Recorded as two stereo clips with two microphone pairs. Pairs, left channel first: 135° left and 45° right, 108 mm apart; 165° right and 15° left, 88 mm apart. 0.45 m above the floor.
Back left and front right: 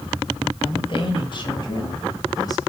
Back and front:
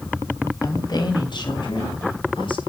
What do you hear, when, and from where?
0.6 s a woman speaking: 165° left, 3 m; by 2.6 s 170° right, 4.5 m